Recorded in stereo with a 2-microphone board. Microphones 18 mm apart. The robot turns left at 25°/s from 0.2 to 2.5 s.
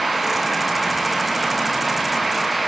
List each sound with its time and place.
Only background noise.